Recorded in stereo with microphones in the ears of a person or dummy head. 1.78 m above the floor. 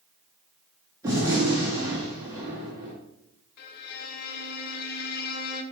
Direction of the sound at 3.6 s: 60° left (ahead or behind).